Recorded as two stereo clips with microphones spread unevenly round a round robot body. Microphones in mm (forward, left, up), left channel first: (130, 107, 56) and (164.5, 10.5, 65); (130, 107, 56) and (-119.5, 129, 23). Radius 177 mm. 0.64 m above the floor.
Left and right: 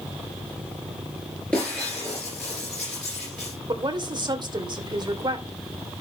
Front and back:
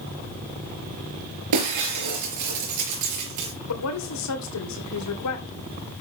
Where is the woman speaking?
25° right, 3 m.